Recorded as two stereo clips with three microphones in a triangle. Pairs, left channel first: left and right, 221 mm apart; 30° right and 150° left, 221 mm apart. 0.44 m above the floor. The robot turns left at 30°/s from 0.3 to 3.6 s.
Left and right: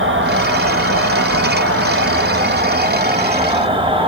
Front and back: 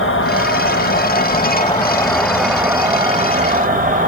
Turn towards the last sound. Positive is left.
turn(degrees=-155)